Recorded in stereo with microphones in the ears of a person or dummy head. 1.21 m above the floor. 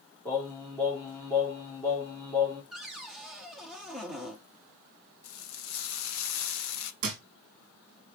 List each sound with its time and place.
0.2 s singing: 5° left (ahead or behind), 3 m
2.7 s a cupboard door: 5° right (ahead or behind), 1.1 m
5.2 s frying: 85° left, 1.2 m
7.0 s a thud: 40° right (ahead or behind), 1.4 m